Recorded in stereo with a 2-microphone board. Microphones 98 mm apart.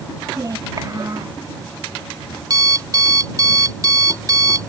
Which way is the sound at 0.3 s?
40° right (ahead or behind).